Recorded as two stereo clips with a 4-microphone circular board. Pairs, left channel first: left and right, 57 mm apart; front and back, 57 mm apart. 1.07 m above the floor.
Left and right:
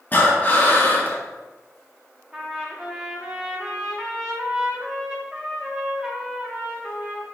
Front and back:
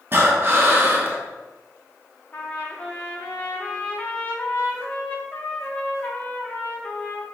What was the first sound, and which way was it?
Breathing, 140° left.